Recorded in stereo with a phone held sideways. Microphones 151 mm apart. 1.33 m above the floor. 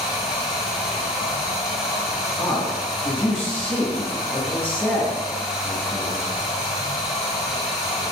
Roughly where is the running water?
Centre.